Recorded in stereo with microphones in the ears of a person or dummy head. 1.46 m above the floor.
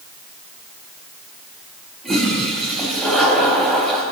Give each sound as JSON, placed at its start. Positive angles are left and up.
{"t": 2.0, "sound": "a toilet flushing", "side_deg": 0, "distance_m": 3.5}